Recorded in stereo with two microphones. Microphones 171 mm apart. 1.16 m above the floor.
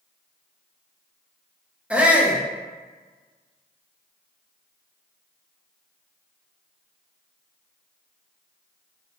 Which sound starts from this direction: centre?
A shout, at 1.9 s.